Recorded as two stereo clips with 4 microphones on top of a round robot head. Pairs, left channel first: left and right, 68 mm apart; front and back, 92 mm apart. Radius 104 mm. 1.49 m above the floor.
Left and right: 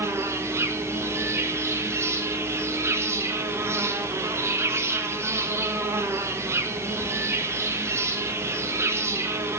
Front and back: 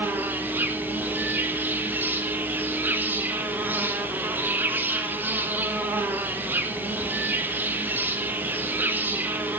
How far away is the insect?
About 1.2 m.